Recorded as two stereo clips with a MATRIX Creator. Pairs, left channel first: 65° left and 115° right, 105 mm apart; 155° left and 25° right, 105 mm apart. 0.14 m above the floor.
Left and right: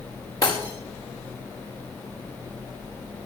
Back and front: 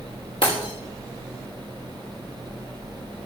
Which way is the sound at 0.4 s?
125° left.